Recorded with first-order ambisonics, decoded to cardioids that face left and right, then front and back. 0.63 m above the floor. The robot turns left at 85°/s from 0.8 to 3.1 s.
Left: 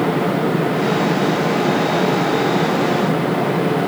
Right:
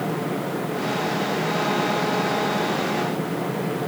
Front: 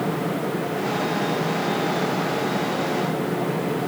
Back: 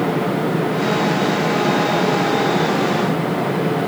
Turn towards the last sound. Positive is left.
No sound to turn to.